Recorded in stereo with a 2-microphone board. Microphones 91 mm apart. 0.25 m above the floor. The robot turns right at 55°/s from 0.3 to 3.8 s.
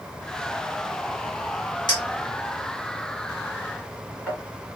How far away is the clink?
About 1.7 m.